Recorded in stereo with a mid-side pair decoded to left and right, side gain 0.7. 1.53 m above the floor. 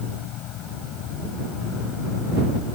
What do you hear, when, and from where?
0.0 s an insect: 55° left